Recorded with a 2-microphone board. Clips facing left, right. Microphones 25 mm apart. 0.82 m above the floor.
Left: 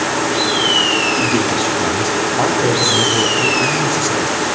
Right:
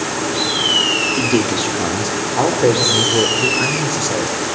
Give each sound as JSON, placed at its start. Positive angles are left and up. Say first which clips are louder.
{"t": 1.2, "sound": "a man speaking", "louder": "left 1 dB", "side_deg": -35, "distance_m": 2.5}